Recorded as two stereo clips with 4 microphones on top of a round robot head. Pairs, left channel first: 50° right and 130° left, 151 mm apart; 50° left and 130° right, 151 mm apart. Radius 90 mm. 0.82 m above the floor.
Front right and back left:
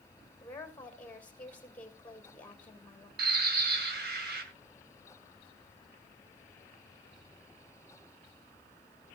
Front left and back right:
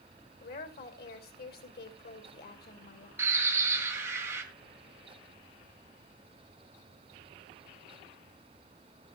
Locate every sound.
0.4 s a woman speaking: 30° left, 3 m
3.2 s a bird: 155° left, 2 m